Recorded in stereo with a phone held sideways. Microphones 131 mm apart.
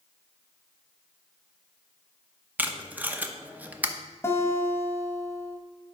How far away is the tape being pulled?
About 0.7 m.